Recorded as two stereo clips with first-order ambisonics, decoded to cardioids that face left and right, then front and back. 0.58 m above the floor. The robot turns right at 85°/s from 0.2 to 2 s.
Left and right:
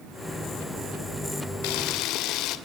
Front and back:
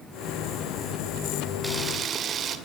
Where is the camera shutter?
95° left, 2 m; by 2.6 s 125° left, 2 m.